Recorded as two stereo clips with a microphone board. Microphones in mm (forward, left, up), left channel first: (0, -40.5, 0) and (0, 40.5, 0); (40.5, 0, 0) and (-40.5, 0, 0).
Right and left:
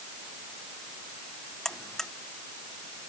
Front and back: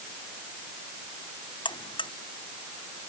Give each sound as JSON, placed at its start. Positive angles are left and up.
{"t": 1.6, "sound": "a buzzer", "azimuth_deg": -5}